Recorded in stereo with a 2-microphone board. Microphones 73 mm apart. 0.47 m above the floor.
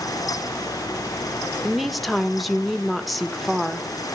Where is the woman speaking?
Centre (ahead or behind), 1.0 m.